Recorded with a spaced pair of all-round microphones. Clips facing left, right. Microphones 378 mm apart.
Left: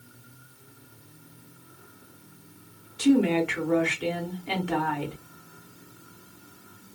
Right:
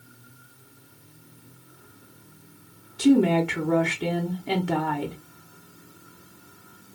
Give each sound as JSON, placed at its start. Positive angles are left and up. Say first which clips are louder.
{"t": 3.0, "sound": "a woman speaking", "louder": "right 2 dB", "side_deg": -55, "distance_m": 0.7}